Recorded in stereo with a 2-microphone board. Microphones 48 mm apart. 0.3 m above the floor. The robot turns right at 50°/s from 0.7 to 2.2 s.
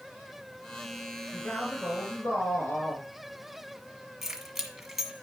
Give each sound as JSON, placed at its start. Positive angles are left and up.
{"t": 1.3, "sound": "a man speaking", "azimuth_deg": 40, "distance_m": 4.0}
{"t": 4.2, "sound": "keys jangling", "side_deg": 0, "distance_m": 1.7}